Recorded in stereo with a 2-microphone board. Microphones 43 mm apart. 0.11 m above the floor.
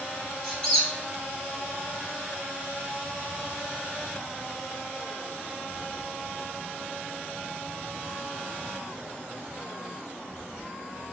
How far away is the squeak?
About 1.5 m.